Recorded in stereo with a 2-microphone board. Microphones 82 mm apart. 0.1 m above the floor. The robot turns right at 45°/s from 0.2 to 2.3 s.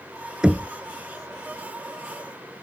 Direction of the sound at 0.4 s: 10° right (ahead or behind).